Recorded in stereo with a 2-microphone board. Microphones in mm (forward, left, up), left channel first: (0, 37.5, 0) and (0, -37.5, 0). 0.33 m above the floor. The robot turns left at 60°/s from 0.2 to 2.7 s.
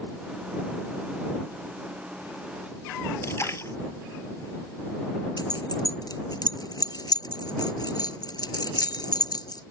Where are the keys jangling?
60° left (ahead or behind).